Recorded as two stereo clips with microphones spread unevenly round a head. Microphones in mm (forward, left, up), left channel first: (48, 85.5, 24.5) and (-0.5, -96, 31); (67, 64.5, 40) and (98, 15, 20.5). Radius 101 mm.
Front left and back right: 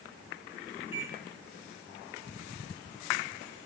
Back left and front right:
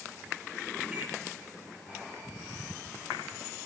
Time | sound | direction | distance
0.9 | a microwave | 15° left | 2.5 m